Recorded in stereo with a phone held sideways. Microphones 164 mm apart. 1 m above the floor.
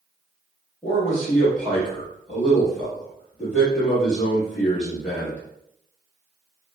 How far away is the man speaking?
About 1.6 m.